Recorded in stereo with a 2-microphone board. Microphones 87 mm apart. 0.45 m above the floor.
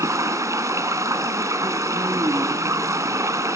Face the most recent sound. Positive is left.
turn(degrees=-35)  # may be behind; listen again after turning